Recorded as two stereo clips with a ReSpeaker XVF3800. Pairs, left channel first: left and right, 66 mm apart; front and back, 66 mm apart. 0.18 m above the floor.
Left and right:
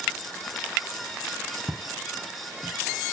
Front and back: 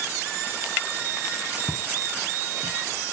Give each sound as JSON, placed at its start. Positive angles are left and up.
{"t": 1.7, "sound": "footsteps", "azimuth_deg": -150, "distance_m": 1.9}